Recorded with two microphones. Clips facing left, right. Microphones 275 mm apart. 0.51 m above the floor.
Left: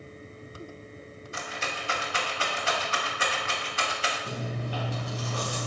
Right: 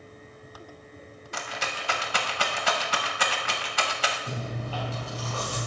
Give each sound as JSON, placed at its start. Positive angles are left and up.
{"t": 1.3, "sound": "a rattle", "side_deg": -85, "distance_m": 0.9}
{"t": 4.3, "sound": "chewing", "side_deg": 15, "distance_m": 3.0}